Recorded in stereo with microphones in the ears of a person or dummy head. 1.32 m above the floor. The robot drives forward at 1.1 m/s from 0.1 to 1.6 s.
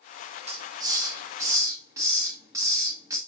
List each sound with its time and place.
0.5 s a hiss: 30° right (ahead or behind), 0.8 m; by 3.2 s 10° right (ahead or behind), 2 m